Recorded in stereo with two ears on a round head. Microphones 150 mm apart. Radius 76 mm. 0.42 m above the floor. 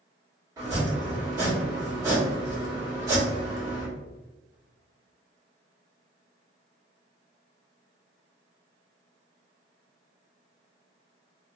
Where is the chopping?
20° right (ahead or behind), 1.6 m.